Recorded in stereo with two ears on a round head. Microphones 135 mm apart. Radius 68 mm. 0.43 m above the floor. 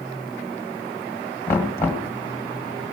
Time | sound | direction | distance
1.5 | knocking | 20° left (ahead or behind) | 1.8 m